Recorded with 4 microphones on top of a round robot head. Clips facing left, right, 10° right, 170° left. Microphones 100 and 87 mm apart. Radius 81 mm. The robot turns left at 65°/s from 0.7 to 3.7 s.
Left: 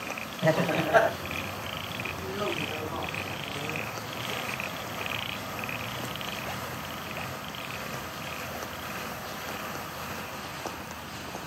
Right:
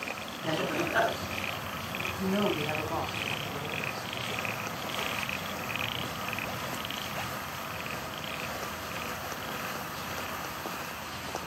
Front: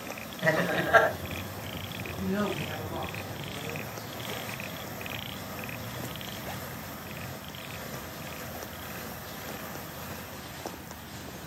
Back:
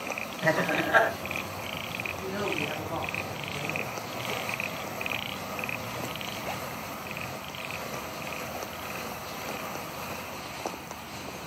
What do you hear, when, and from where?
0.4 s laughter: 80° left, 4 m; by 1.1 s 55° left, 4 m
2.2 s a woman speaking: 85° right, 6.5 m; by 4.4 s straight behind, 6.5 m